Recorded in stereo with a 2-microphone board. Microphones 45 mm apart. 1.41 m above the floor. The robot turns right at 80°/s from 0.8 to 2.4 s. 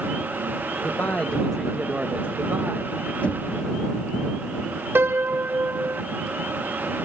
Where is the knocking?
35° left (ahead or behind).